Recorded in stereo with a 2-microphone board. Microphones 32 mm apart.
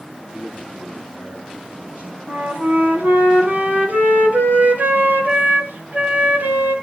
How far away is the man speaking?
About 9.5 m.